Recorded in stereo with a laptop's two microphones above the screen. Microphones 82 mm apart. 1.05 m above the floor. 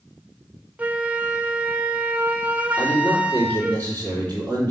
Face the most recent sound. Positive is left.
turn(degrees=25)  # may be behind; listen again after turning